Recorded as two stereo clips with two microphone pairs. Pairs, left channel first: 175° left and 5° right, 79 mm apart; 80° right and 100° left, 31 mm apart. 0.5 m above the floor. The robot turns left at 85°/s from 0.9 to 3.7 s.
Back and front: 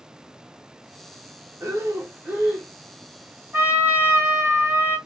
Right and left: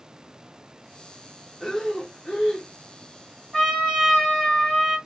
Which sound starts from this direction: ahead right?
A trumpet, at 3.5 s.